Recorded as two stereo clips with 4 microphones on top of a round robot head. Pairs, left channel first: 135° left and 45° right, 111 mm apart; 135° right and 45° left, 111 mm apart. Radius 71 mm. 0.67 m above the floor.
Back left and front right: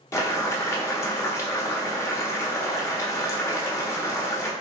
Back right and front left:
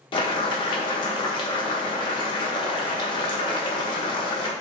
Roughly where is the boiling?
Behind.